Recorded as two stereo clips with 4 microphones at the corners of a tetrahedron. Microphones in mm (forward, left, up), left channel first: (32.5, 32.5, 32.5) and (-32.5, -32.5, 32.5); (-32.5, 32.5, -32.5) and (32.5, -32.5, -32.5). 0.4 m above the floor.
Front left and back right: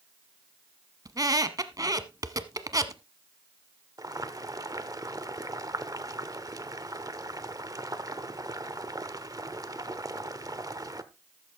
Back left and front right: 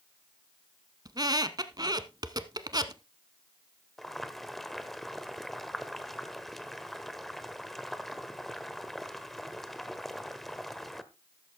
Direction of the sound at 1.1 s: 85° right.